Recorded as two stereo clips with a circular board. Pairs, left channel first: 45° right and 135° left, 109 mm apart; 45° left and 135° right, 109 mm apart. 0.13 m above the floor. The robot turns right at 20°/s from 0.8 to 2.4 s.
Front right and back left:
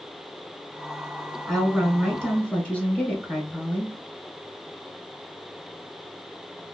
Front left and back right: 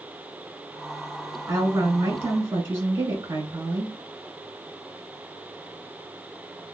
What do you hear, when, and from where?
1.5 s a woman speaking: 130° right, 1.4 m; by 4.0 s 110° right, 1.4 m